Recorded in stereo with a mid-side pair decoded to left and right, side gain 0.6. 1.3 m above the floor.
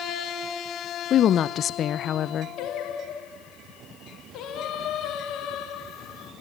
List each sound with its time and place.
1.1 s a woman speaking: 50° left, 0.8 m
2.6 s singing: 60° left, 3 m